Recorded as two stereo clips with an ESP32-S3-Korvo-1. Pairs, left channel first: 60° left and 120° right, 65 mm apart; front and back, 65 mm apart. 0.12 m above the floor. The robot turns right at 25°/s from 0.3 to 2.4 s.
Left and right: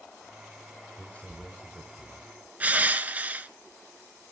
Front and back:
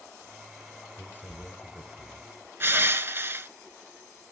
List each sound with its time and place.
0.9 s a man speaking: 5° left, 1.3 m; by 2.3 s 40° left, 1.3 m
2.6 s crushing: 170° right, 0.6 m